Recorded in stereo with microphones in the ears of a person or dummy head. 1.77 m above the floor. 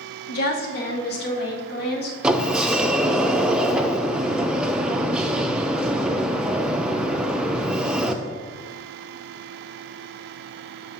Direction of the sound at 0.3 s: 60° left (ahead or behind).